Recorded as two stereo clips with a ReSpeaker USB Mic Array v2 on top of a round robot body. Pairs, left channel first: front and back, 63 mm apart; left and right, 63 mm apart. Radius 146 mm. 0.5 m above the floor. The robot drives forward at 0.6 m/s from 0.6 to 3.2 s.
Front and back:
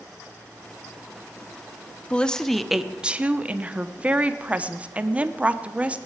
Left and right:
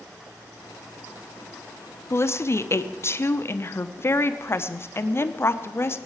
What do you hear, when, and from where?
2.1 s a woman speaking: 65° left, 1.1 m; by 6.0 s 120° left, 1.1 m